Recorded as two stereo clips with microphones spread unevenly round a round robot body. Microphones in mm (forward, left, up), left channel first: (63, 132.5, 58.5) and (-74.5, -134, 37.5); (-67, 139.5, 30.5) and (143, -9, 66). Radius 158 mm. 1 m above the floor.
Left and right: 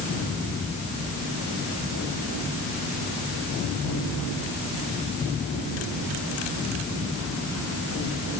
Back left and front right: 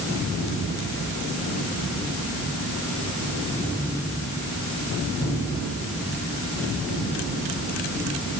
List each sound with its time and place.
Only background noise.